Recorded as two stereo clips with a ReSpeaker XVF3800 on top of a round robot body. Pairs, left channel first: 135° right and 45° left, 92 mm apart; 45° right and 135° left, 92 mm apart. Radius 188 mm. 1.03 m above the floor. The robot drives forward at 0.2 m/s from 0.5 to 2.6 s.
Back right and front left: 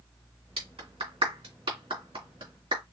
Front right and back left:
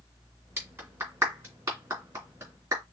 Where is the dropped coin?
I don't hear a dropped coin.